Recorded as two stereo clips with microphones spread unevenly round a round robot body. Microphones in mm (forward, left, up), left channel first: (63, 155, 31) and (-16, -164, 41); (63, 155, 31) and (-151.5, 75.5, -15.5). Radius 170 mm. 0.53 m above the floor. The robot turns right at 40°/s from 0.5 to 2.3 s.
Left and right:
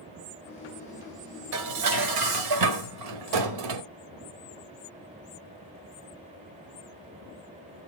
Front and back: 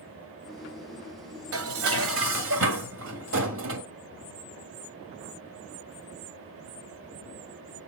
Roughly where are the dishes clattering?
Behind right.